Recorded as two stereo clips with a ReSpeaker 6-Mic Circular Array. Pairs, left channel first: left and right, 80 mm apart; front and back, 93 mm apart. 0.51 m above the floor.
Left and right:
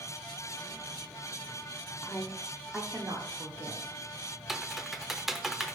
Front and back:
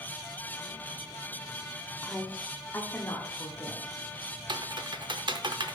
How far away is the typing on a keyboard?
About 0.6 m.